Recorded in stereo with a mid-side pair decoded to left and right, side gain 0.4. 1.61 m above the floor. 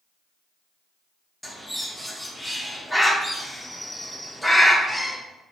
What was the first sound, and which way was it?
A bird, straight ahead.